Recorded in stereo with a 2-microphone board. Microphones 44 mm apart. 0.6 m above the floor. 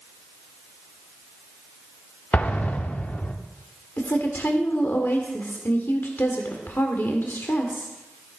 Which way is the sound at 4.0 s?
55° left (ahead or behind).